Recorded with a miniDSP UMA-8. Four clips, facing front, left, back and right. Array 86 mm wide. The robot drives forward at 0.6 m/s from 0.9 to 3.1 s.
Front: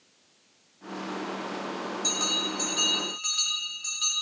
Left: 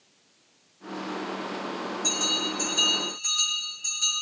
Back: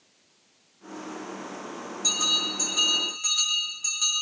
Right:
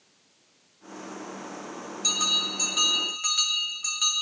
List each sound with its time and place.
2.0 s a bell: 95° right, 6 m; by 4.1 s 100° right, 6 m